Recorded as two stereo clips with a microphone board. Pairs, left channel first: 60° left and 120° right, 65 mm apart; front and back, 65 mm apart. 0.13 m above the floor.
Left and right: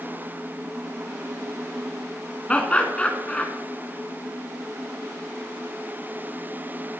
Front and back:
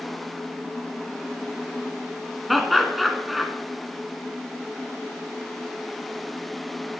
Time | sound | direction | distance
2.5 | laughter | 90° left | 1.4 m